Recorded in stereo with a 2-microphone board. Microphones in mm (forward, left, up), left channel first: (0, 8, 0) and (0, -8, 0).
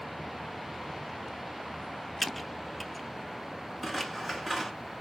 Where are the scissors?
5° right (ahead or behind), 1.5 m.